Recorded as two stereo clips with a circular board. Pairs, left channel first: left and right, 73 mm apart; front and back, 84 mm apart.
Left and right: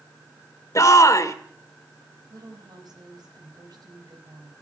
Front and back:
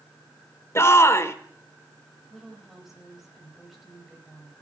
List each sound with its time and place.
0.8 s a shout: 55° left, 1.7 m
2.3 s a woman speaking: 90° right, 4 m